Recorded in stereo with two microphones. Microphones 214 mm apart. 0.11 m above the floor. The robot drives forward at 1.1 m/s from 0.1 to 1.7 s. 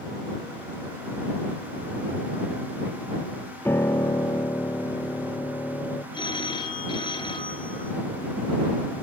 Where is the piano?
10° left (ahead or behind), 0.6 m.